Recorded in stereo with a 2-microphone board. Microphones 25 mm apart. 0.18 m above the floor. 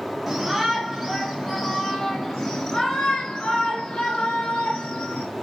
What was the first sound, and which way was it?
A shout, 15° right (ahead or behind).